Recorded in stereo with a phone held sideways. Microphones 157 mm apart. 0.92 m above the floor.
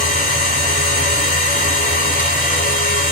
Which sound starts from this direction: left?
A machine running, at 0.0 s.